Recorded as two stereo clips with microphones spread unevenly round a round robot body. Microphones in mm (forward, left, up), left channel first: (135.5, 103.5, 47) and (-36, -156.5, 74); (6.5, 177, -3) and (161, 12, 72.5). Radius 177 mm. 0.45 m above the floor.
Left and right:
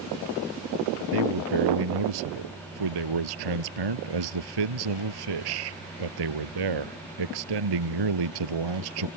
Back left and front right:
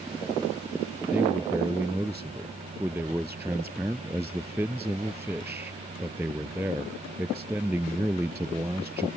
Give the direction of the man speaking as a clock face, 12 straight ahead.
4 o'clock.